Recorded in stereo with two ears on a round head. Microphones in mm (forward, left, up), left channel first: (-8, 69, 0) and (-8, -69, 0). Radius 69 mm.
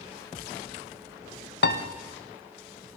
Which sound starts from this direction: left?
A piano, at 1.6 s.